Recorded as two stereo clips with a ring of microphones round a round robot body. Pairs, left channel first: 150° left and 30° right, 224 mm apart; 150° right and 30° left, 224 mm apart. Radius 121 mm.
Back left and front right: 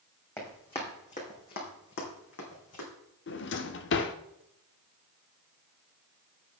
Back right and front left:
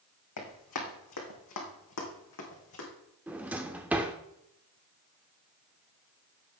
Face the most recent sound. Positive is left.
turn(degrees=115)